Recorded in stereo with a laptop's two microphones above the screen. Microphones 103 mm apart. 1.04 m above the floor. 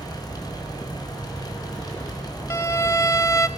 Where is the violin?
30° left (ahead or behind), 1.0 m.